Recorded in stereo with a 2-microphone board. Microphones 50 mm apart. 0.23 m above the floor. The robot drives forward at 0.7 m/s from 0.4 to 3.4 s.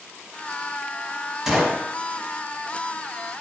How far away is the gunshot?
About 1.3 m.